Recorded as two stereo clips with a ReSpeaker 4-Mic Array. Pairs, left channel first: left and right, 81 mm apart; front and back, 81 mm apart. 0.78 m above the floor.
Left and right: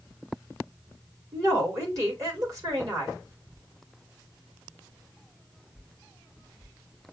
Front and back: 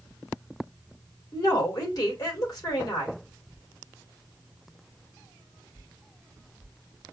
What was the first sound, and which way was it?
A woman speaking, 40° right.